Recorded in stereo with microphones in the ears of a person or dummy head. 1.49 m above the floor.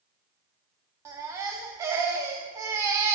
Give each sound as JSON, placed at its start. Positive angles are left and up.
{"t": 1.1, "sound": "a baby crying", "side_deg": -15, "distance_m": 0.5}